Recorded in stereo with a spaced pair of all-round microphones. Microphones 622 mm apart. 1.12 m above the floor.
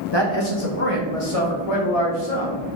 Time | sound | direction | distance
0.1 | a man speaking | 40° left (ahead or behind) | 1.0 m